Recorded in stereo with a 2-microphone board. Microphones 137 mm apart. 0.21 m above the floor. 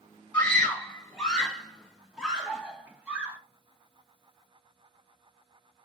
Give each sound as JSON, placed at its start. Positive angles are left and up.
{"t": 0.3, "sound": "a scream", "side_deg": 10, "distance_m": 2.0}